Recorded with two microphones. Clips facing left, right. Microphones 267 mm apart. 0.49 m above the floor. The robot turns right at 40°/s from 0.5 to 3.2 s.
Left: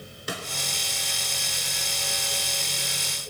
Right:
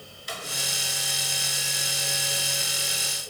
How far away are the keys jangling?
No keys jangling in this recording.